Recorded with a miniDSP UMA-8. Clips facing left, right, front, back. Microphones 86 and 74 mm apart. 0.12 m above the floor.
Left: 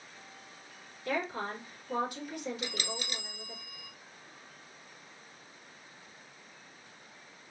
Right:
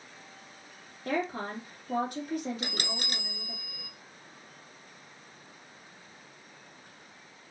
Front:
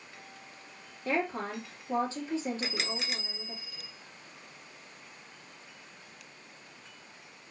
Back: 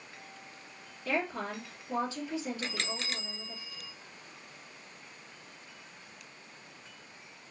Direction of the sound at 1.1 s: 55° right.